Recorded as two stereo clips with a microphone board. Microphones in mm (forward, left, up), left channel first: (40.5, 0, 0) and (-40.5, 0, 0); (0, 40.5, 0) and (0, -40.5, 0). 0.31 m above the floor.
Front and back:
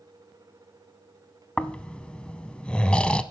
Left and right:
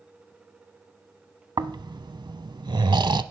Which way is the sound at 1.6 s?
75° right.